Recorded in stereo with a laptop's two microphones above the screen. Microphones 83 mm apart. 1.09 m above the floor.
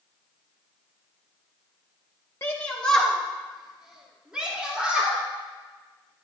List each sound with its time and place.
2.4 s a shout: 30° left (ahead or behind), 1.0 m; by 5.2 s 10° right (ahead or behind), 4.5 m